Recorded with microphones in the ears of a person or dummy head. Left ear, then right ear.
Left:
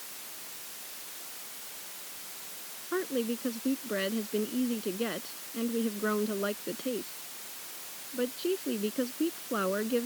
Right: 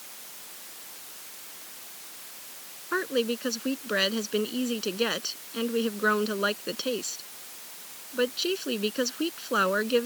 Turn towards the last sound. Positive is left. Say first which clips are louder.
# right 5 dB
turn(degrees=-65)  # may be behind; listen again after turning